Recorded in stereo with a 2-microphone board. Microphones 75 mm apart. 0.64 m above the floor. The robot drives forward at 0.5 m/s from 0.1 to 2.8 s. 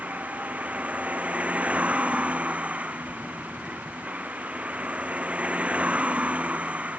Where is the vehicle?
20° right (ahead or behind); by 7.0 s 15° right (ahead or behind).